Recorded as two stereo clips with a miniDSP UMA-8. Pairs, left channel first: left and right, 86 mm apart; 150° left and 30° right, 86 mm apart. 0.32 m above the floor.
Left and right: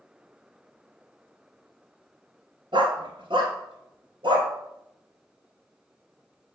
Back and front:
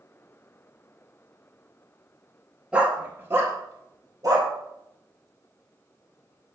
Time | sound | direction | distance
2.7 | a dog barking | 105° right | 1.2 m